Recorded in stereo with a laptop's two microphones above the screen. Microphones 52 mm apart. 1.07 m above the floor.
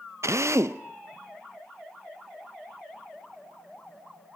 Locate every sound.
0.2 s a drill: 75° right (ahead or behind), 0.5 m